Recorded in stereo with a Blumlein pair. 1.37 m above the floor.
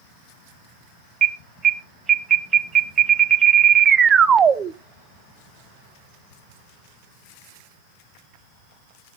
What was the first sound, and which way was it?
An alarm, 20° right.